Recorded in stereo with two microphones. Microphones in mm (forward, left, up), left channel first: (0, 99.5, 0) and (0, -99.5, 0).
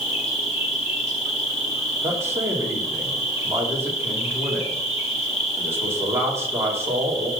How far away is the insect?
About 4.5 m.